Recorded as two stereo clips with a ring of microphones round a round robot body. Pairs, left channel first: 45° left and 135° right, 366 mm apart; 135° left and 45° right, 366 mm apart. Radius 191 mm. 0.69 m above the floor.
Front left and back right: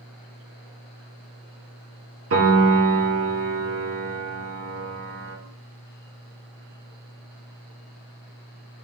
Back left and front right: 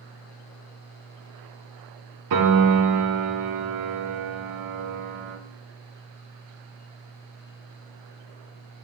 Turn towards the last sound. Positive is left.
turn(degrees=-80)